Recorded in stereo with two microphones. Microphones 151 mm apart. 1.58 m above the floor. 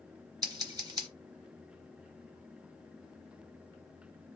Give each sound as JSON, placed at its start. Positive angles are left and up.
{"t": 0.4, "sound": "scissors", "side_deg": -25, "distance_m": 1.1}